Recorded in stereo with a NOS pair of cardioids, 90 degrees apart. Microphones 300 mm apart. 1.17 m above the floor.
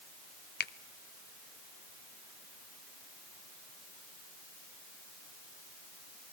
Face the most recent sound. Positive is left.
turn(degrees=35)